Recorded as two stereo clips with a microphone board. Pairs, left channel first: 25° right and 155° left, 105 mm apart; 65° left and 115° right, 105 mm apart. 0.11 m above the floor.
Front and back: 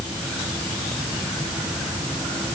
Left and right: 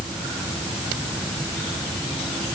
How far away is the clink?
No clink in this recording.